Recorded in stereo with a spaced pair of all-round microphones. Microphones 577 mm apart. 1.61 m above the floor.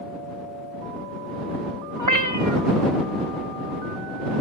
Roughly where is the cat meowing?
Right.